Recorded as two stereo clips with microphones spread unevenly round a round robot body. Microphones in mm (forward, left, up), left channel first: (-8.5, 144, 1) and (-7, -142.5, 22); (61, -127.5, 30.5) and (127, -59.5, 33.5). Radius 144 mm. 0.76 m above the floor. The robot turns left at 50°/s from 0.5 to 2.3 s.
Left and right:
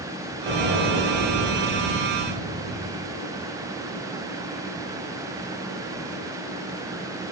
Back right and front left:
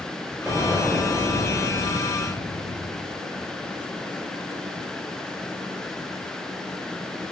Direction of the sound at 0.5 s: 35° right.